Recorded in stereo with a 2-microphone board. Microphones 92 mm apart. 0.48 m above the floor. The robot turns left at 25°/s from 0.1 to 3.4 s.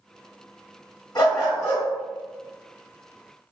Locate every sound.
1.1 s a dog barking: 40° left (ahead or behind), 1.7 m; by 1.9 s 25° left (ahead or behind), 1.7 m